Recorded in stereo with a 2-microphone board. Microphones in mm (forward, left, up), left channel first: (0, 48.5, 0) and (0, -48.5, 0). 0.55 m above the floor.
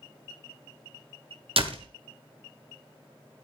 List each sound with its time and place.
1.6 s a door slam: 70° right (ahead or behind), 1.6 m